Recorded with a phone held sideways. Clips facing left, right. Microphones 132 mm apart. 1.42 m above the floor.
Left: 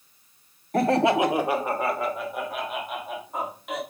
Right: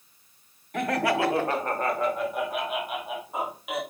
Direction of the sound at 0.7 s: 40° left (ahead or behind).